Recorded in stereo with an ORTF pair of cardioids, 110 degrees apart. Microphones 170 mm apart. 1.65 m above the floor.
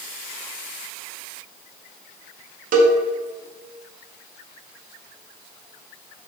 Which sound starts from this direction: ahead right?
A cowbell, at 2.7 s.